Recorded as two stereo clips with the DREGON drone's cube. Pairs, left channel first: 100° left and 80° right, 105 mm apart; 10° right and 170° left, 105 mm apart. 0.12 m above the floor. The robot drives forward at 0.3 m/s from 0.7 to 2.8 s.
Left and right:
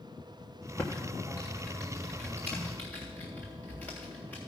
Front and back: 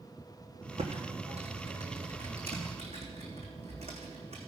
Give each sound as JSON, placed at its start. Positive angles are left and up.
{"t": 0.8, "sound": "typing on a keyboard", "azimuth_deg": 175, "distance_m": 2.5}